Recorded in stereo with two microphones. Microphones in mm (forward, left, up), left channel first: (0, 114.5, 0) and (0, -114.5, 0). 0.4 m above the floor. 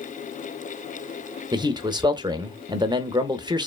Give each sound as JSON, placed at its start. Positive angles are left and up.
{"t": 1.5, "sound": "a man speaking", "side_deg": -20, "distance_m": 0.8}